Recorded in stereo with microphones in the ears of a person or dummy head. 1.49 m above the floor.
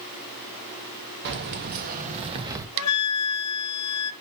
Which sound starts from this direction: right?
Keys jangling, at 1.2 s.